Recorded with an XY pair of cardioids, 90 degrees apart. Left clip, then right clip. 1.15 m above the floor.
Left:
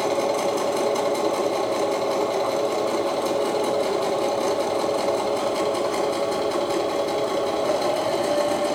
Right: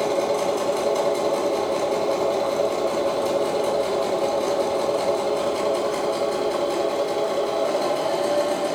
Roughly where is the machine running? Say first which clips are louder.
Even; ahead left.